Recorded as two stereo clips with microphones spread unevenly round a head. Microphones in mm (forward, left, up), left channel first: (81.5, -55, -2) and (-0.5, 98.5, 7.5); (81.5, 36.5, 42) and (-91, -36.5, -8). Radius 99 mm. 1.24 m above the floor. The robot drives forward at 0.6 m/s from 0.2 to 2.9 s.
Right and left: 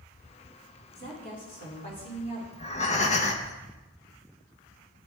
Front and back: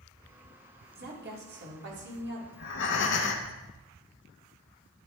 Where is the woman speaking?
115° right, 2.5 m; by 2.4 s 130° right, 3 m.